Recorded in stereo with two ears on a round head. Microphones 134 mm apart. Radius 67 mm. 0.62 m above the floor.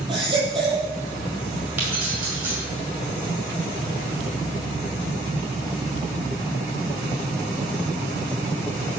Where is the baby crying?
35° right (ahead or behind), 7 m.